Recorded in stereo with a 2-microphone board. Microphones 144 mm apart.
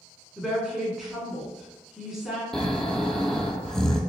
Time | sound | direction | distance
0.4 | a woman speaking | 5° right (ahead or behind) | 1.2 m
2.5 | snoring | 5° left (ahead or behind) | 0.6 m